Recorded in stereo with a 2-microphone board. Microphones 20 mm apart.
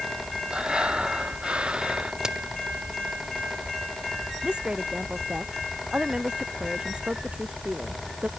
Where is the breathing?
60° right (ahead or behind).